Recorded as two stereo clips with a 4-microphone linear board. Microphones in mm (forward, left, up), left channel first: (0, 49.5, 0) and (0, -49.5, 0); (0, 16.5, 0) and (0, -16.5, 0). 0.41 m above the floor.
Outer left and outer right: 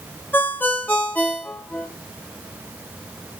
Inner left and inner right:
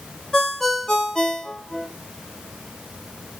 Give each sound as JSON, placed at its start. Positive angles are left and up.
{"t": 0.3, "sound": "a ringtone", "side_deg": 20, "distance_m": 0.7}